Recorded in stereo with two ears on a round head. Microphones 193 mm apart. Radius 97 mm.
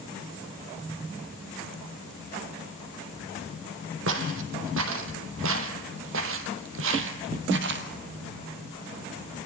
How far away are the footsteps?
About 3.5 m.